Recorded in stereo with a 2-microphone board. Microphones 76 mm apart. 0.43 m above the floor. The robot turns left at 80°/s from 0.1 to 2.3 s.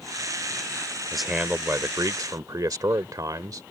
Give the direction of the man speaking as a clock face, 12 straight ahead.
12 o'clock.